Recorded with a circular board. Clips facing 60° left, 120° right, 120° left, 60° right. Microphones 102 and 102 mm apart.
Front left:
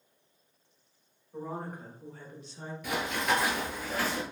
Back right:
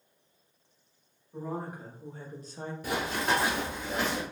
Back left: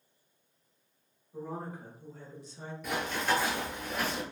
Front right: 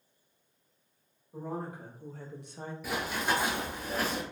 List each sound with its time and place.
1.3 s a woman speaking: 30° right, 1.3 m; by 2.7 s 105° right, 0.6 m
2.8 s running footsteps: 145° right, 1.0 m; by 4.2 s 55° right, 1.1 m